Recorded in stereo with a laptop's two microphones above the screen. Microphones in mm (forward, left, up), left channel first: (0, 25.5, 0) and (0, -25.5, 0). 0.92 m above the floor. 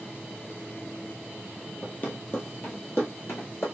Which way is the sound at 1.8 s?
30° left (ahead or behind).